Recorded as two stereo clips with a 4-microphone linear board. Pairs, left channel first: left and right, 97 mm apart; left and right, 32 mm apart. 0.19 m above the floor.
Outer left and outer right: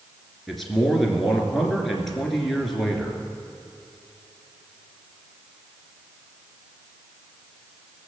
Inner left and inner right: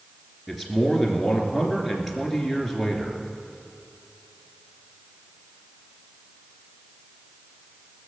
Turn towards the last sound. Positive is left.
turn(degrees=0)  # may be behind; listen again after turning